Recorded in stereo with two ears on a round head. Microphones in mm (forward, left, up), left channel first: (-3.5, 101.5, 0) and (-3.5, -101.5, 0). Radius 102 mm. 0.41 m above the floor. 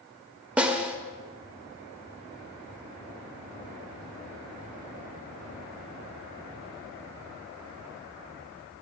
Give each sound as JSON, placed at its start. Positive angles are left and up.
{"t": 0.6, "sound": "a snare drum", "side_deg": -5, "distance_m": 0.5}